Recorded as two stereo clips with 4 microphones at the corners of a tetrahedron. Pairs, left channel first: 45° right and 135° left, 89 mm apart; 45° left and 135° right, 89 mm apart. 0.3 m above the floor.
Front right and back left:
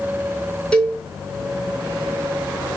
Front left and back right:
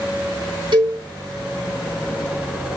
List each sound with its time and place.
0.7 s a cowbell: 125° right, 3.5 m